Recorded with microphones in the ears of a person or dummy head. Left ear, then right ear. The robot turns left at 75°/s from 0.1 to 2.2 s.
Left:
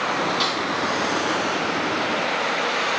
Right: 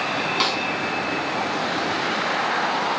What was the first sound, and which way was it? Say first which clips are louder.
A snare drum: right 1 dB; 30° right (ahead or behind).